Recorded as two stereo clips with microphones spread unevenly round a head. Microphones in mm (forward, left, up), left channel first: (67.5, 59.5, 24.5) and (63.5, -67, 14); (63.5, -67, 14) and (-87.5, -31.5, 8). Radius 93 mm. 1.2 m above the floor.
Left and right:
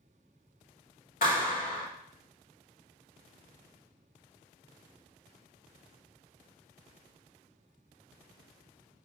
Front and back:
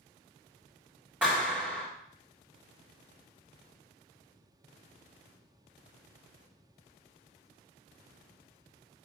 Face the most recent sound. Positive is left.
turn(degrees=85)